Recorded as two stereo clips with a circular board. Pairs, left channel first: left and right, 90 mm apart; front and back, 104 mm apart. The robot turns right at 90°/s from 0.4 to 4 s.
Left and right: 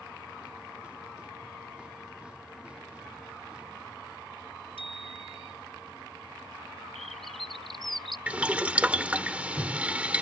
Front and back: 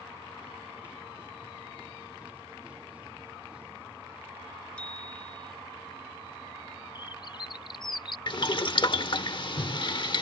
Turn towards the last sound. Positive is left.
turn(degrees=-20)